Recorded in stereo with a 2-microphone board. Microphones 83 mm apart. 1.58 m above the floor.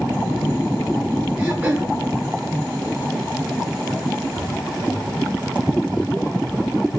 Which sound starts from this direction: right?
Throat clearing, at 1.4 s.